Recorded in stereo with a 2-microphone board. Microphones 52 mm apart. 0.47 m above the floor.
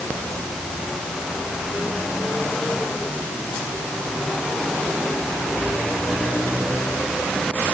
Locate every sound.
Only background noise.